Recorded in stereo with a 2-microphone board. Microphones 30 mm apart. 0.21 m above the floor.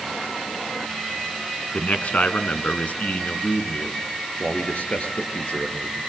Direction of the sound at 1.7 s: 50° left (ahead or behind).